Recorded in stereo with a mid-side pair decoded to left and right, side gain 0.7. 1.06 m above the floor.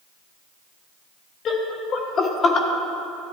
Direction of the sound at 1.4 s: 45° left.